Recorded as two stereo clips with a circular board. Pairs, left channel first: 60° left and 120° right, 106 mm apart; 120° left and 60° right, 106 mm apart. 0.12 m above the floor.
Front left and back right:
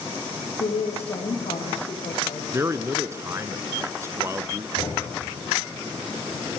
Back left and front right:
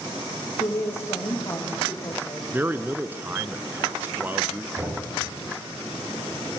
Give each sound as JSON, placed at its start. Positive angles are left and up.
{"t": 0.6, "sound": "a woman speaking", "azimuth_deg": 60, "distance_m": 5.5}
{"t": 2.5, "sound": "a man speaking", "azimuth_deg": -105, "distance_m": 1.2}
{"t": 4.8, "sound": "a thud", "azimuth_deg": 15, "distance_m": 6.0}